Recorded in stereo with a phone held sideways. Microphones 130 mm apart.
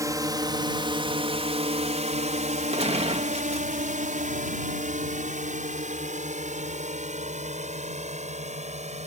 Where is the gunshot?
50° right (ahead or behind).